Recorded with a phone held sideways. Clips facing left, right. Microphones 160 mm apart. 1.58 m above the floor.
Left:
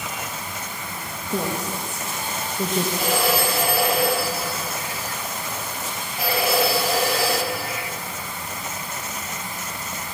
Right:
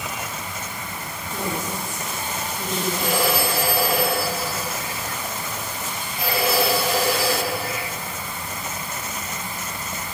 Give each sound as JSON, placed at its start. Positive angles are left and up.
{"t": 1.3, "sound": "a woman speaking", "side_deg": 75, "distance_m": 2.0}
{"t": 3.0, "sound": "a phone ringing", "side_deg": 10, "distance_m": 7.5}